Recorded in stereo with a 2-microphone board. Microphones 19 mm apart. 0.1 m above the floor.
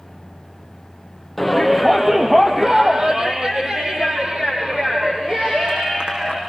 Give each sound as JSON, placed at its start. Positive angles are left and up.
{"t": 1.4, "sound": "a shout", "side_deg": 0, "distance_m": 3.0}